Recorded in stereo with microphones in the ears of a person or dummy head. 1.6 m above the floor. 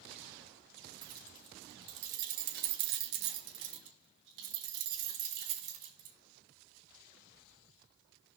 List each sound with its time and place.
1.0 s keys jangling: 20° right (ahead or behind), 1.7 m; by 6.2 s 45° right (ahead or behind), 2.5 m